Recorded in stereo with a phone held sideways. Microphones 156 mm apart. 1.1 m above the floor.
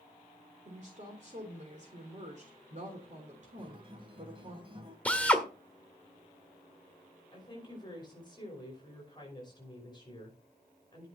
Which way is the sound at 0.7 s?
50° right (ahead or behind).